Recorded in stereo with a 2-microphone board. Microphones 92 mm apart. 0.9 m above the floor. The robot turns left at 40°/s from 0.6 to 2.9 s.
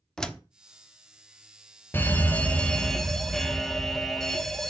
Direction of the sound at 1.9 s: 45° left.